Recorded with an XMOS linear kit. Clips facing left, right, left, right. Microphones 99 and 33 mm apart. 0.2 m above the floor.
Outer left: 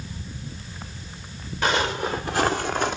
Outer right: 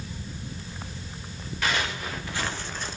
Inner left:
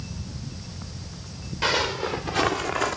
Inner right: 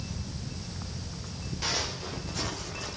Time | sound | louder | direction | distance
1.6 | footsteps | outer left 6 dB, inner left 10 dB | 30° left (ahead or behind) | 1.8 m